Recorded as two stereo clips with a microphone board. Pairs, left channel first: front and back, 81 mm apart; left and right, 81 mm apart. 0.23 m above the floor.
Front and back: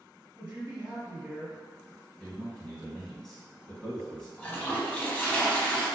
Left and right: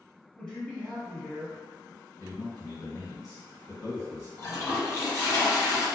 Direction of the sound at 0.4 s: 145° left.